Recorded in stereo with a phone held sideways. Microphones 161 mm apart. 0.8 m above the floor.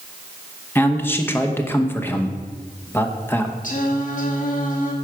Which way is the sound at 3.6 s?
55° left (ahead or behind).